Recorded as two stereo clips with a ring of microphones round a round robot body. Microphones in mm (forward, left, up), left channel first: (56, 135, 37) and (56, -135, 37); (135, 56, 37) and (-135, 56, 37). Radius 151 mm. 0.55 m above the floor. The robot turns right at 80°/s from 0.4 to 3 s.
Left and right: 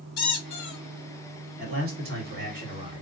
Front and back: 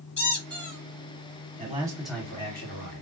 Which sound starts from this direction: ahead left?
A squeak, at 0.2 s.